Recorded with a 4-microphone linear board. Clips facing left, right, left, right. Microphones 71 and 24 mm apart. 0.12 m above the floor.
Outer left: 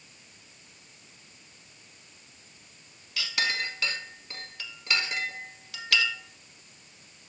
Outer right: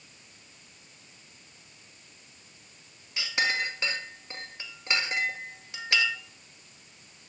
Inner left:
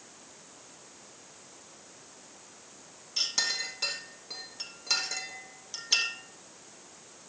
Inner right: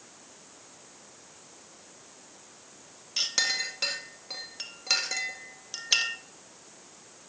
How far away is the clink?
About 1.2 m.